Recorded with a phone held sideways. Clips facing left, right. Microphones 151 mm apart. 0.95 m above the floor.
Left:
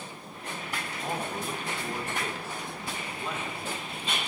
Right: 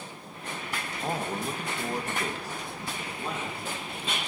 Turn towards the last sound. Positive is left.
turn(degrees=-25)  # may be behind; listen again after turning